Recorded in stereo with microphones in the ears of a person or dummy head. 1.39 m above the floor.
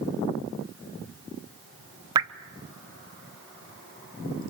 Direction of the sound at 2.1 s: 20° right (ahead or behind).